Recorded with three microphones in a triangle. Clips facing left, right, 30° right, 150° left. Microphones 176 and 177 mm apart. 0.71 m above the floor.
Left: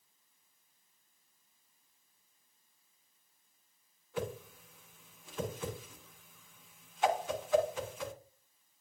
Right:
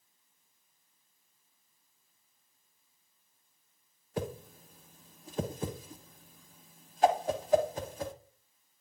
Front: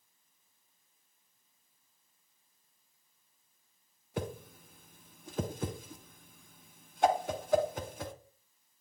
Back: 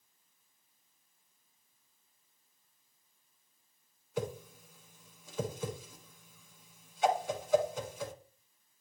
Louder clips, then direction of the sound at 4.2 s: Right 2 dB, back 2 dB; 45° right.